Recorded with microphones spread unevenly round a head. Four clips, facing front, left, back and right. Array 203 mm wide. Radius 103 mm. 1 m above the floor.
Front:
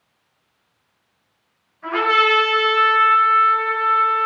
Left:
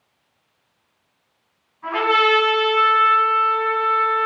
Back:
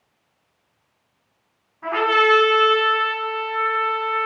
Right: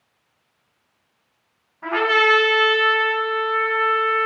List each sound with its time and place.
1.8 s a trumpet: 120° right, 1.9 m